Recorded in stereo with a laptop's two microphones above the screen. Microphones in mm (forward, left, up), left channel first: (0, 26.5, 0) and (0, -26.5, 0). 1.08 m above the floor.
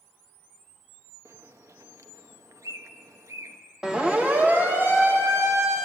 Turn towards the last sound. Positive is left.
turn(degrees=-65)  # may be behind; listen again after turning